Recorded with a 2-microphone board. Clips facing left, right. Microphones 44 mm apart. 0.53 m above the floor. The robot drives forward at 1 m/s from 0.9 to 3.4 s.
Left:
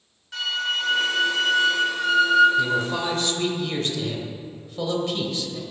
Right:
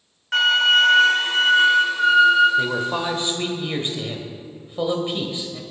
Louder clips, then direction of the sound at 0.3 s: Right 10 dB; 60° right (ahead or behind).